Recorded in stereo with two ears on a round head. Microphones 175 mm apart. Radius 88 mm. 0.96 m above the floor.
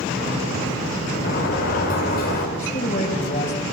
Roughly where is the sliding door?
Left.